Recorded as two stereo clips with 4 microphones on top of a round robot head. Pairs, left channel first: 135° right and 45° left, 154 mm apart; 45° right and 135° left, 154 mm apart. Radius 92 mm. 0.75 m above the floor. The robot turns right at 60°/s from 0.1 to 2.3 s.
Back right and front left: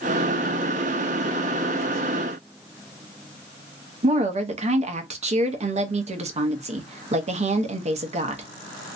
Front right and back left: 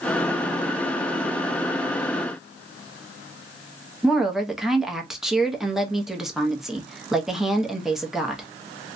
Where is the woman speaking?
50° left, 0.8 m.